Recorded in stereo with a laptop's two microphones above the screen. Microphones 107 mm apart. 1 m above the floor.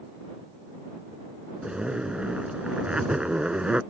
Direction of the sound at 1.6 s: 10° right (ahead or behind).